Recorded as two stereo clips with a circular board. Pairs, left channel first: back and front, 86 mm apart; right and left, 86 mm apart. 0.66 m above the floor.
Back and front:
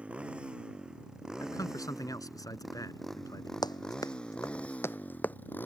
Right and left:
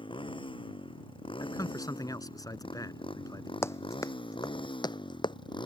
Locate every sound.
0.0 s a motorcycle: 75° right; by 5.7 s 115° right
1.4 s a man speaking: 135° right
3.6 s running footsteps: 150° right; by 5.4 s 110° right